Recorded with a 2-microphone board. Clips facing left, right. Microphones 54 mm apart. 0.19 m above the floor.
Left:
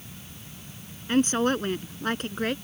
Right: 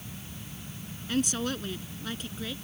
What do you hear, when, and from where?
1.1 s a woman speaking: 40° left (ahead or behind); by 2.5 s 60° left (ahead or behind)